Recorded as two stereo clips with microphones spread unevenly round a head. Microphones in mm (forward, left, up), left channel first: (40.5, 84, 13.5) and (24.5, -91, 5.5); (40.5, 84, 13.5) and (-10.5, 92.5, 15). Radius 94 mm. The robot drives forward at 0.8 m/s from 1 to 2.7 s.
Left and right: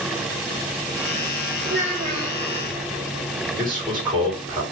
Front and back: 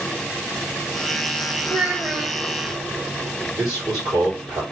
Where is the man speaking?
160° right, 2.5 m.